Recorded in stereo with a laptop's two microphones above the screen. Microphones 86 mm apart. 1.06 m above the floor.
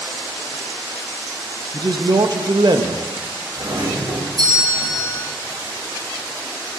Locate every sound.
1.7 s a man speaking: 50° right (ahead or behind), 1.2 m
3.6 s a doorbell: 55° right (ahead or behind), 5 m